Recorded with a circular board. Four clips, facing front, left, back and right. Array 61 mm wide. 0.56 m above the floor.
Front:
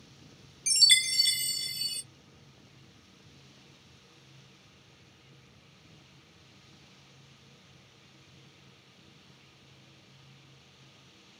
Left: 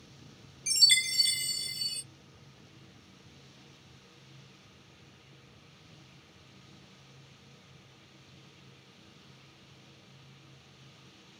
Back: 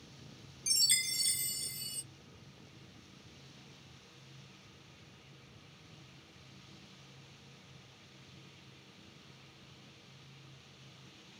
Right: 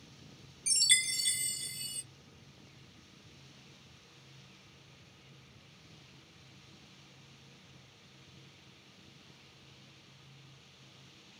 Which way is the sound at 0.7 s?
10° left.